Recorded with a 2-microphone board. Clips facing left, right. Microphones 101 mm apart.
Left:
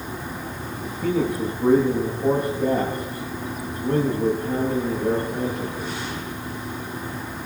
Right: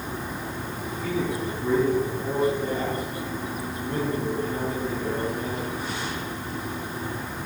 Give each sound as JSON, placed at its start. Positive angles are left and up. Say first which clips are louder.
{"t": 0.8, "sound": "a man speaking", "louder": "left 5 dB", "side_deg": 65, "distance_m": 8.5}